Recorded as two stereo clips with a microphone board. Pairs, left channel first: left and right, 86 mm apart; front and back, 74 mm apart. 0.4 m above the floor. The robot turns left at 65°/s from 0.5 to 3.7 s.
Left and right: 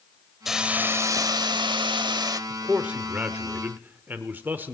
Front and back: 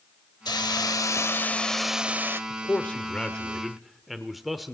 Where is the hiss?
5° right, 0.7 m; by 2.4 s 130° right, 0.7 m.